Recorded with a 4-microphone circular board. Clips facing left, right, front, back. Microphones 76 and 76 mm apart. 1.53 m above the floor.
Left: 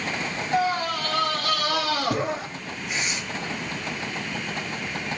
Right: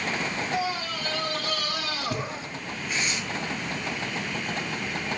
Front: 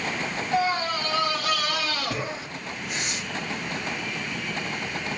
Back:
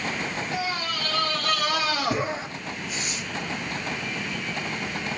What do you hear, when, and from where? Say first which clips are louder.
0.5 s a scream: left 10 dB, front 9 dB; 50° left, 2.5 m; by 2.5 s 110° left, 3 m
2.9 s tearing paper: even, front 3 dB; 15° left, 7 m